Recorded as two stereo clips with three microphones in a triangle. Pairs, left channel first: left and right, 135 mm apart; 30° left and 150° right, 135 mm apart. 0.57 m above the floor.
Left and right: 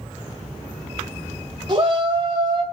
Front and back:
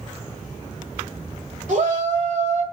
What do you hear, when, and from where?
1.7 s a shout: 140° right, 2 m